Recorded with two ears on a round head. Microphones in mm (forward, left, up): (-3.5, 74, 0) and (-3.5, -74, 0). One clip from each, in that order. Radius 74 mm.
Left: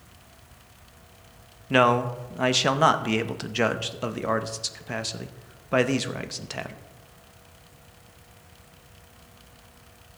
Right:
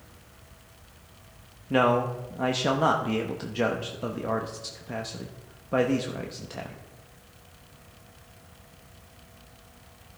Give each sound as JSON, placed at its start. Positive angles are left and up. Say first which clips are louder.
{"t": 1.7, "sound": "a man speaking", "louder": "left 3 dB", "side_deg": 55, "distance_m": 0.8}